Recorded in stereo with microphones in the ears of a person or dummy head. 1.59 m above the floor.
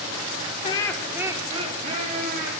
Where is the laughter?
30° left (ahead or behind), 1.1 m; by 2.5 s 50° right (ahead or behind), 3 m.